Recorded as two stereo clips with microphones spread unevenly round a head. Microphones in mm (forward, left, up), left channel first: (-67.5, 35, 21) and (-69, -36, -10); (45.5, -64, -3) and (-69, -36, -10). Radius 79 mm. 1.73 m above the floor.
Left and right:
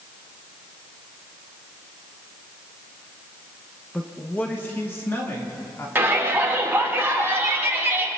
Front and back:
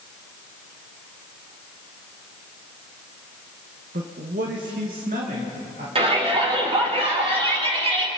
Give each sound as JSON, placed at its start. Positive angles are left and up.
{"t": 3.9, "sound": "a man speaking", "azimuth_deg": 160, "distance_m": 1.4}
{"t": 6.0, "sound": "a shout", "azimuth_deg": -155, "distance_m": 5.0}